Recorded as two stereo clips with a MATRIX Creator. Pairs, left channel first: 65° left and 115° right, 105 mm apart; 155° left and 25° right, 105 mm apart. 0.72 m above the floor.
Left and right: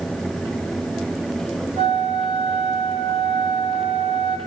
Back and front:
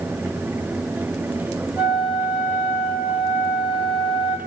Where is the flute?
100° right, 3 m.